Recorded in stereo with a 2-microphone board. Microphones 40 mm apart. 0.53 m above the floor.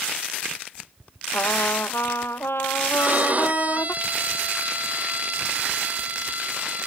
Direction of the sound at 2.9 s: 40° right (ahead or behind).